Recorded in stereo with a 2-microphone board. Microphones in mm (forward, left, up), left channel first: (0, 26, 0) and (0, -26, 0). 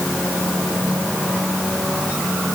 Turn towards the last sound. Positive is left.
No sound to turn to.